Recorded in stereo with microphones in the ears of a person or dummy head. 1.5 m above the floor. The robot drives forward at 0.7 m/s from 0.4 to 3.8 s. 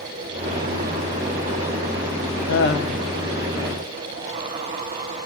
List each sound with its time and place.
2.5 s laughter: 65° left (ahead or behind), 1.2 m; by 3.1 s 50° left (ahead or behind), 1.4 m